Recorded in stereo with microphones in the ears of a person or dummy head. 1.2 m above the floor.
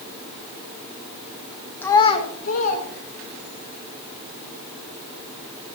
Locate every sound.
1.8 s a child speaking: 10° left (ahead or behind), 0.7 m; by 3.6 s 60° left (ahead or behind), 2.0 m